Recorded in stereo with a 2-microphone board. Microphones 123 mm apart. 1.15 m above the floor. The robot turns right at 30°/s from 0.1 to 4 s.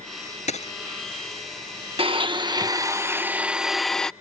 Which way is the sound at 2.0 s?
55° right.